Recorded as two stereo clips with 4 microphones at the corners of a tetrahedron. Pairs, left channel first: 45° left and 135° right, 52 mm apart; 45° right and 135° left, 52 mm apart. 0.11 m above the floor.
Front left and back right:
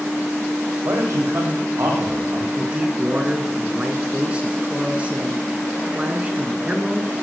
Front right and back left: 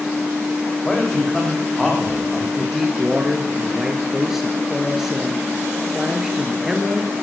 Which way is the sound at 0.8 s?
120° right.